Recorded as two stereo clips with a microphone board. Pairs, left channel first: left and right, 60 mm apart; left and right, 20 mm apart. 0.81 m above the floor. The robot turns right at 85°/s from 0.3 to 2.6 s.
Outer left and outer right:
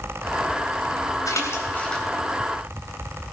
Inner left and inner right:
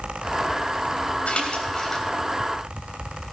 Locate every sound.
1.3 s a splash: 70° left (ahead or behind), 3.5 m; by 2.1 s 5° left (ahead or behind), 3.5 m